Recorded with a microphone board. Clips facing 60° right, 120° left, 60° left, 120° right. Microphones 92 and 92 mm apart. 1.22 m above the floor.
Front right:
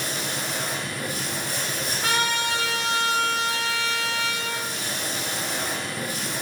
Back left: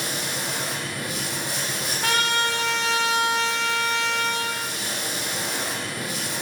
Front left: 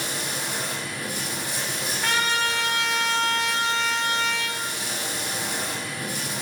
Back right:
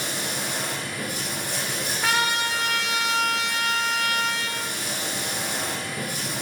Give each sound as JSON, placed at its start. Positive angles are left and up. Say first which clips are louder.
{"t": 0.0, "sound": "running water", "louder": "even, back right 1 dB", "azimuth_deg": -160, "distance_m": 4.5}
{"t": 2.0, "sound": "a trumpet", "louder": "back left 2 dB, even", "azimuth_deg": 155, "distance_m": 2.5}